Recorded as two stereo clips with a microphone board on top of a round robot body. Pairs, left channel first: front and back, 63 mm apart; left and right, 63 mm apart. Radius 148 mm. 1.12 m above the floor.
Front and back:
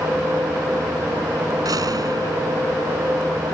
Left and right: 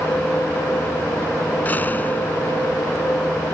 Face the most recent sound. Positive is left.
turn(degrees=155)